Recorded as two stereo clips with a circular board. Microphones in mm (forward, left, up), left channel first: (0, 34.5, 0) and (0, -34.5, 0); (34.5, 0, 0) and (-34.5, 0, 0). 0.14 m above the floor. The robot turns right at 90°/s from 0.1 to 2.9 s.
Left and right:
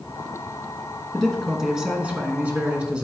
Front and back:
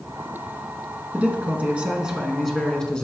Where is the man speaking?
150° left, 1.1 m; by 3.0 s 50° right, 1.1 m.